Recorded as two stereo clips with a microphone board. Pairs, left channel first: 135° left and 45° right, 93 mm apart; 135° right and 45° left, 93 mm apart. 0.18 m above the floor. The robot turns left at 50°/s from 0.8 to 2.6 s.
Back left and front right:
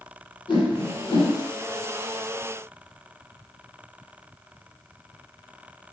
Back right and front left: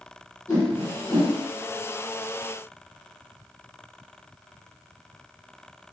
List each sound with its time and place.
0.5 s a whoosh: 170° left, 1.2 m; by 1.3 s 140° left, 1.2 m